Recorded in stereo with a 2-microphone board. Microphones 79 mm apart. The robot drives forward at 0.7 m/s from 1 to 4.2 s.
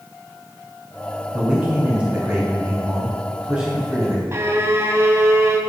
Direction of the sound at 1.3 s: 25° right (ahead or behind).